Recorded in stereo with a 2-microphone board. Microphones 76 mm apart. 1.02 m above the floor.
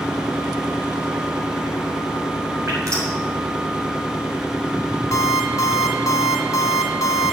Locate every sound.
2.7 s dripping: 45° right (ahead or behind), 6.5 m
5.1 s an alarm clock: 45° left (ahead or behind), 2.5 m